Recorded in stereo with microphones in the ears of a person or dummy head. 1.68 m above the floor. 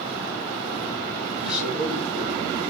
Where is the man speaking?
Centre (ahead or behind), 2.5 m.